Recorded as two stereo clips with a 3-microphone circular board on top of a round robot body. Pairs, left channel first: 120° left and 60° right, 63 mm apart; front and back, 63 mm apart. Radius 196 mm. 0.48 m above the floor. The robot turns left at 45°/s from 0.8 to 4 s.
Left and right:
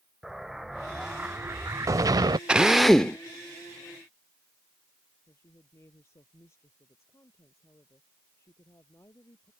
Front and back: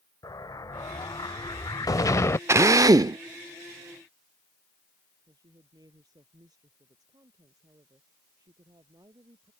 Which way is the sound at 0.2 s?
25° left.